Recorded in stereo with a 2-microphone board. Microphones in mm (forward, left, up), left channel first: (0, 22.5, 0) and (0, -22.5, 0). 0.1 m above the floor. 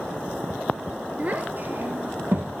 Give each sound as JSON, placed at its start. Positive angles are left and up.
{"t": 1.2, "sound": "a child speaking", "side_deg": -35, "distance_m": 1.4}